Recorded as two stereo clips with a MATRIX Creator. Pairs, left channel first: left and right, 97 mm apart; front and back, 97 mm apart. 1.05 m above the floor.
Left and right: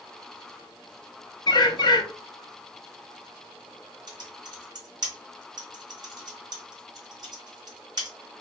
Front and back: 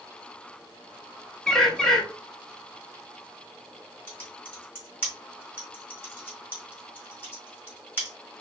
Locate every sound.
1.5 s a bird: 85° left, 0.5 m
4.1 s typing on a keyboard: 65° right, 1.2 m